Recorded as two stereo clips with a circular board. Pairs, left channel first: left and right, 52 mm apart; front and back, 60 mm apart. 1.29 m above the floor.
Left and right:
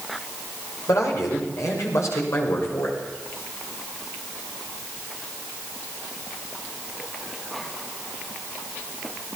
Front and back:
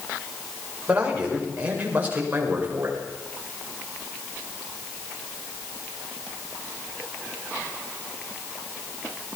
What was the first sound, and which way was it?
A man speaking, 110° left.